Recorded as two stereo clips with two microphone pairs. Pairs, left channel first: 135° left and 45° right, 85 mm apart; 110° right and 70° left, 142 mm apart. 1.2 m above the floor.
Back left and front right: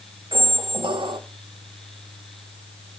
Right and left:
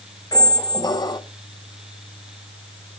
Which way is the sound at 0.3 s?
45° right.